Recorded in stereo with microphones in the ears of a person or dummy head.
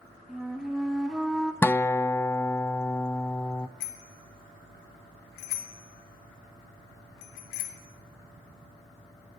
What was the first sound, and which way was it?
A flute, centre (ahead or behind).